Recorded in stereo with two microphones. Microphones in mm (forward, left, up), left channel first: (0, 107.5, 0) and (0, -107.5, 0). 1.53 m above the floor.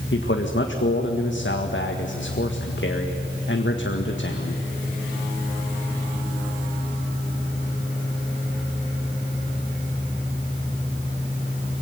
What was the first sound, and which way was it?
A man speaking, 65° left (ahead or behind).